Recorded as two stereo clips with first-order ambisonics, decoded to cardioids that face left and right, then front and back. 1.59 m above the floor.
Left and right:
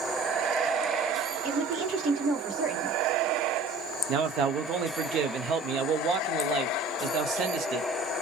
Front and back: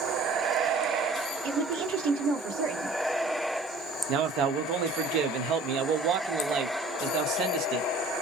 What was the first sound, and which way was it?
A woman speaking, 160° right.